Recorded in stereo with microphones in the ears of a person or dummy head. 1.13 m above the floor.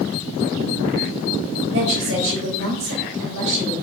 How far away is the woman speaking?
About 3 m.